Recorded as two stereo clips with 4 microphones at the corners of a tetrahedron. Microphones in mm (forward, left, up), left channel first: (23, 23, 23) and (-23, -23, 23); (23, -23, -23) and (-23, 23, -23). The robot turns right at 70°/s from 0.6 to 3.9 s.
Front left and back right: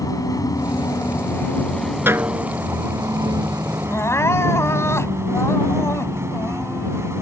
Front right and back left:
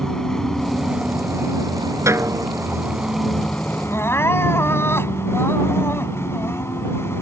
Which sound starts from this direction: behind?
A snare drum, at 2.1 s.